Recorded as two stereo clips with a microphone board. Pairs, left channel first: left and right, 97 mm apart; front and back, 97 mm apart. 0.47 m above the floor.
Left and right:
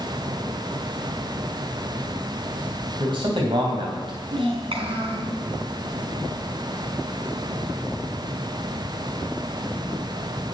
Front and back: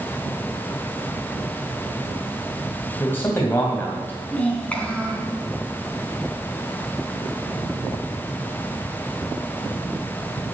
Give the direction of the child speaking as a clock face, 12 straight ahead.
3 o'clock.